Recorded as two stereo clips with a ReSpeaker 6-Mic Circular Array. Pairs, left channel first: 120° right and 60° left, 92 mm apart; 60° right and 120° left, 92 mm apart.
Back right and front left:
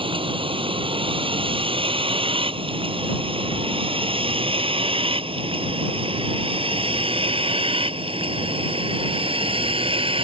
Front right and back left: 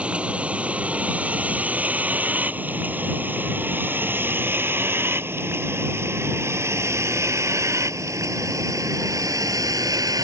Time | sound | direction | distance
0.0 | a vehicle | 45° left | ?